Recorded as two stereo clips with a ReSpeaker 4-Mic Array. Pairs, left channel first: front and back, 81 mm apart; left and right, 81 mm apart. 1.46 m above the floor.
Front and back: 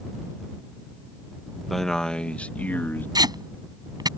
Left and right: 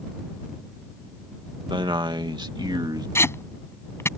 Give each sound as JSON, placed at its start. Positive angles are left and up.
{"t": 1.7, "sound": "a man speaking", "azimuth_deg": -90}
{"t": 3.1, "sound": "tape being pulled", "azimuth_deg": 145}